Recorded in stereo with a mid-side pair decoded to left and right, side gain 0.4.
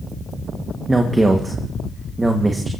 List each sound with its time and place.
0.9 s a man speaking: 25° right, 1.7 m